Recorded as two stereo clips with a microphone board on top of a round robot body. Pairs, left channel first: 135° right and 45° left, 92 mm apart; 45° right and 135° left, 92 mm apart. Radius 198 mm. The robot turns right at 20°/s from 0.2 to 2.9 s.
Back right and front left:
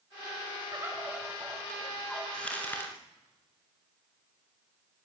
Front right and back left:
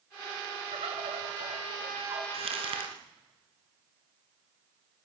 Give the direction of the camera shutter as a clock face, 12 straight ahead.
I don't hear a camera shutter.